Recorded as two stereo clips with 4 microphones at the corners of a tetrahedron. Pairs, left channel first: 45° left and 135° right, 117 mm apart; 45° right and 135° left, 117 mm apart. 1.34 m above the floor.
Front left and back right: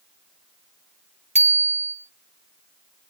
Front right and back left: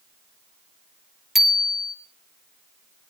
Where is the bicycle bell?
135° right, 3 m.